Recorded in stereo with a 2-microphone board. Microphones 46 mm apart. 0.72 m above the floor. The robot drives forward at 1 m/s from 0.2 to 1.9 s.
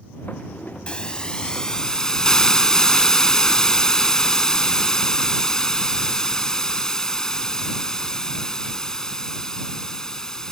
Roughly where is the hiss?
Left.